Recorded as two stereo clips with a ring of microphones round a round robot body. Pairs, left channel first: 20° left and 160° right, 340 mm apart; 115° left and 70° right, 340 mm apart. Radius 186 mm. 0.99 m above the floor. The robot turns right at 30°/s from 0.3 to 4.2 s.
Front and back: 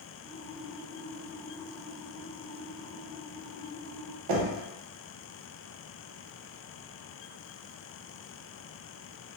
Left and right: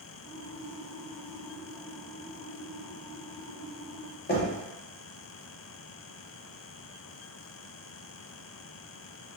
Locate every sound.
4.3 s knocking: 175° left, 0.6 m